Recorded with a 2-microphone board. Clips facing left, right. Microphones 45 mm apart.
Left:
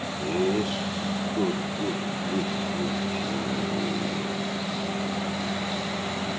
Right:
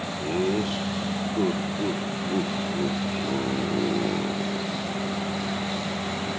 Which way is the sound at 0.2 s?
Centre (ahead or behind).